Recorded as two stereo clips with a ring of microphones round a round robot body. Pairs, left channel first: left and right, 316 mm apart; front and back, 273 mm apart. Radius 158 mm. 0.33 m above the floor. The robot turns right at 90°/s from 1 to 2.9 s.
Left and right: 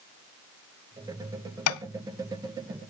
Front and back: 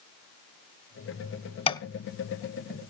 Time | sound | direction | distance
1.7 | tapping | 65° left | 0.8 m